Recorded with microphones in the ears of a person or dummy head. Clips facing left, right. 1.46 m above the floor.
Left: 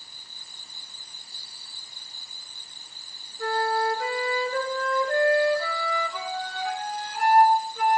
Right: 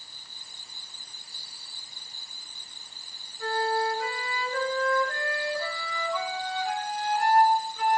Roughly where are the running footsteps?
No running footsteps in this recording.